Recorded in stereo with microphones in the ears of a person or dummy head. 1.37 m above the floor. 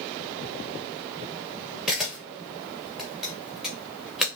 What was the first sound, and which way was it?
A camera shutter, 5° right (ahead or behind).